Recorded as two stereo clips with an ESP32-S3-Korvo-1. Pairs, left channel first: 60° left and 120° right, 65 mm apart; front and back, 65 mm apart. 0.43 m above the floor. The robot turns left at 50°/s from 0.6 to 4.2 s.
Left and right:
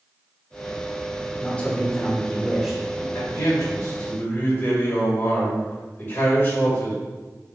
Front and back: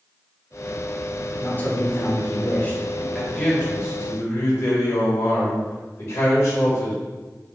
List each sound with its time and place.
1.4 s a man speaking: 20° left, 0.8 m; by 3.0 s 60° right, 0.8 m
3.1 s a man speaking: 70° left, 1.8 m; by 7.0 s 15° left, 1.8 m